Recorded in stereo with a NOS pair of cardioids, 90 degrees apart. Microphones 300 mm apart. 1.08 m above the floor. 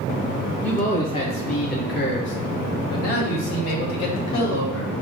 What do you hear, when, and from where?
0.6 s a man speaking: 5° left, 1.4 m; by 4.9 s 75° left, 2.5 m